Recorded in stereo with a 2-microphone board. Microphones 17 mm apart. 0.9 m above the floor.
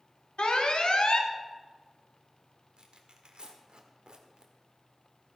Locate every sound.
0.4 s an alarm: 75° left (ahead or behind), 1.3 m
2.8 s tearing paper: 65° right (ahead or behind), 1.7 m